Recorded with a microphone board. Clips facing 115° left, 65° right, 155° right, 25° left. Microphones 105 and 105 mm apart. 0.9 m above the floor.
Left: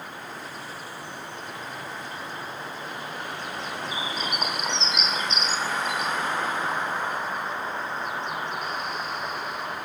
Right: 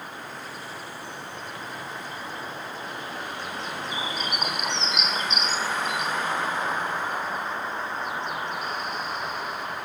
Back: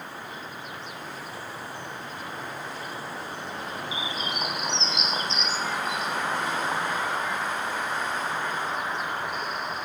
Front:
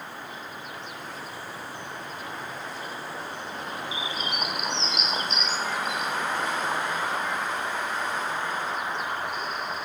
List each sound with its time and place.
3.9 s a bird: 95° right, 2.5 m